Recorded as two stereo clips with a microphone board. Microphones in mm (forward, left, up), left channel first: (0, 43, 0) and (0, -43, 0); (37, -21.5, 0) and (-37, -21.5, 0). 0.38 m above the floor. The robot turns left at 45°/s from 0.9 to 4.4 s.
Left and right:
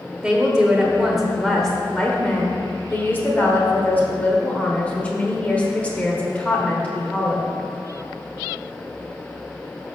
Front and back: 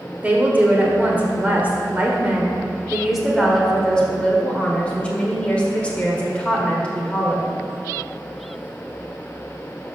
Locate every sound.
0.2 s a woman speaking: 160° right, 1.3 m; by 7.6 s 45° left, 1.3 m